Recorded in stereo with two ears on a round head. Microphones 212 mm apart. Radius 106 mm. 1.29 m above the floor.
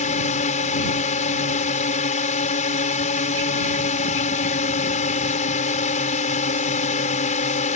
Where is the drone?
30° left (ahead or behind).